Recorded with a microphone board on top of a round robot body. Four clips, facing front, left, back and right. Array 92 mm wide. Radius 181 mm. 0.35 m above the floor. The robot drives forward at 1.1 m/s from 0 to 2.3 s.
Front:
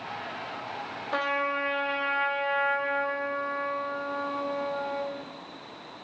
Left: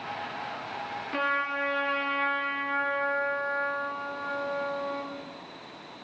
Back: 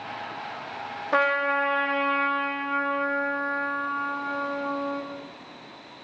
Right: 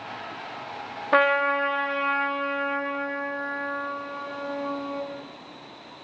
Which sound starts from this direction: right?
A trumpet, at 1.1 s.